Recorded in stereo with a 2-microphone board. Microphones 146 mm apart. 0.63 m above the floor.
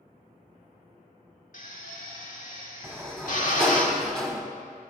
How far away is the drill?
About 1.6 m.